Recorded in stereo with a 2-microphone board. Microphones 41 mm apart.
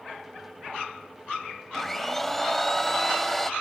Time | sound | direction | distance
1.7 | a blender | 5° left (ahead or behind) | 0.6 m